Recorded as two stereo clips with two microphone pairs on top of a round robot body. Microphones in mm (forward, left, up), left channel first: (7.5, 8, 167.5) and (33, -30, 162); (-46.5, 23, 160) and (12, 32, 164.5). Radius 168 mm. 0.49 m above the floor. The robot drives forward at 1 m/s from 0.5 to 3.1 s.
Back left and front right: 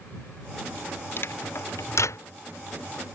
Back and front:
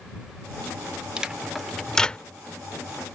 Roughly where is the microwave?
Left.